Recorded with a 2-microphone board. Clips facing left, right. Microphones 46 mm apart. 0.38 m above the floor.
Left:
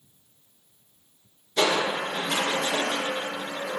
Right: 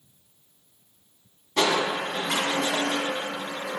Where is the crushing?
65° right (ahead or behind), 1.9 m.